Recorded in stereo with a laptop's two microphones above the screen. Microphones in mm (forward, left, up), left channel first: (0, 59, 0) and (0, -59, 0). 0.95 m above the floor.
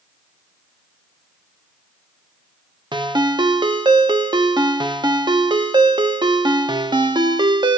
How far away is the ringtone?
About 0.6 m.